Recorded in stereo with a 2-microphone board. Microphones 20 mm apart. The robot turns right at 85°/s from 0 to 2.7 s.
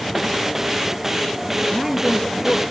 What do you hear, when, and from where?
1.7 s a woman speaking: 30° right, 3.5 m; by 2.6 s 50° left, 3.5 m